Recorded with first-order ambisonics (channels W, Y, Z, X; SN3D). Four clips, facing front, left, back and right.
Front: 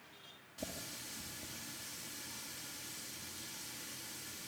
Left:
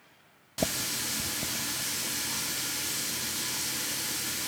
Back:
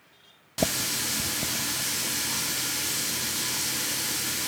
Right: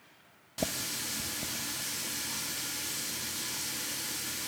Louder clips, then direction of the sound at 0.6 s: Left 4 dB, back 19 dB; 165° left.